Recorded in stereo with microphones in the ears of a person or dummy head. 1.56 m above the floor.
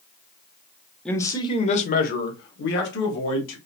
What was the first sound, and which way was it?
A man speaking, 5° left (ahead or behind).